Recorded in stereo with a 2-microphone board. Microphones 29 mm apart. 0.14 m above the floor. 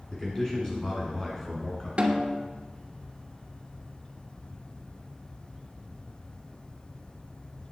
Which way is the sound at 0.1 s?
20° left (ahead or behind).